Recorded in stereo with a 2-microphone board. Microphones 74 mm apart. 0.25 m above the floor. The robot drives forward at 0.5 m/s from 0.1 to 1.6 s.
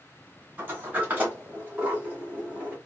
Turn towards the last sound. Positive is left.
turn(degrees=-20)  # may be behind; listen again after turning